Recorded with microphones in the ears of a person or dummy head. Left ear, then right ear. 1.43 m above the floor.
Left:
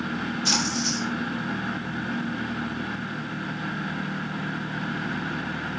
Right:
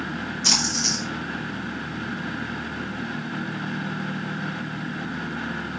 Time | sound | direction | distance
0.4 | a splash | 80° right | 5.5 m